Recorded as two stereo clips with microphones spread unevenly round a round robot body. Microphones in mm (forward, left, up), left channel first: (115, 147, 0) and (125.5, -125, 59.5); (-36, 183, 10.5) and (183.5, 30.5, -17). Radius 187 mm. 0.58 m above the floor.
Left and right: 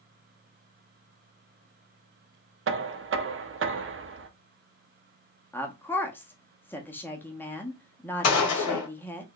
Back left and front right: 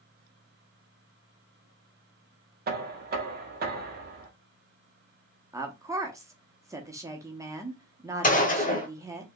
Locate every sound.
2.7 s knocking: 50° right, 0.7 m
5.5 s a woman speaking: 30° left, 0.9 m
8.2 s a gunshot: 80° left, 1.3 m